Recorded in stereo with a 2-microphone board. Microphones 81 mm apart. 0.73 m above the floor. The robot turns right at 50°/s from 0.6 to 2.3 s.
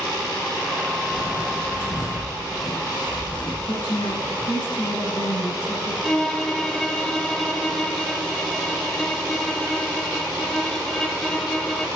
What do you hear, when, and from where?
1.1 s footsteps: 50° left (ahead or behind), 1.5 m; by 4.5 s 75° left (ahead or behind), 2.5 m
3.7 s a woman speaking: 75° left (ahead or behind), 4 m
6.0 s a violin: 5° left (ahead or behind), 0.7 m